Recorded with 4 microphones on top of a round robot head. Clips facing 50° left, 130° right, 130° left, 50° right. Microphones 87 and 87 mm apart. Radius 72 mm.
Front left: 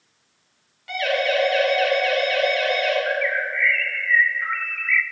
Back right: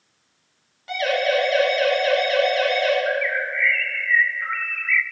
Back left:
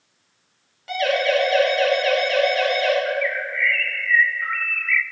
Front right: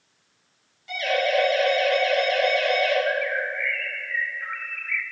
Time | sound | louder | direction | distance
0.9 | a siren | back right 1 dB, back left 3 dB | 165° left | 9.5 m
3.1 | a bird | even, back left 1 dB | 130° left | 0.6 m